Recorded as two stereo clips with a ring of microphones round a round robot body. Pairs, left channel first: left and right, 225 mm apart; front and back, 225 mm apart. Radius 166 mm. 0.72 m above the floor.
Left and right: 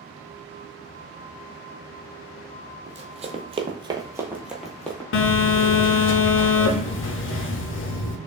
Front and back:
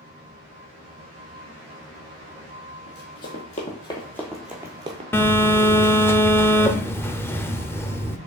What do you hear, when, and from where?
2.9 s running footsteps: 40° right, 1.1 m; by 5.0 s 160° left, 0.7 m
5.1 s a phone buzzing: 80° left, 0.5 m